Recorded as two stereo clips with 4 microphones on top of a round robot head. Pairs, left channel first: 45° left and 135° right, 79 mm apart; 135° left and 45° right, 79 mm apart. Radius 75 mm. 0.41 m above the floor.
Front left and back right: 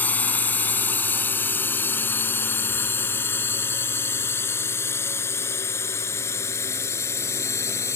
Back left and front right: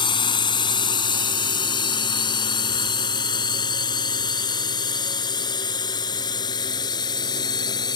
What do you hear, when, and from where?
0.0 s a drone: 115° left; by 8.0 s 100° left